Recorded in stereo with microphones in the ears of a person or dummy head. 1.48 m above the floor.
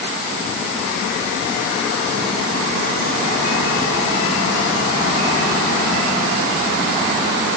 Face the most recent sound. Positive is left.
No sound to turn to.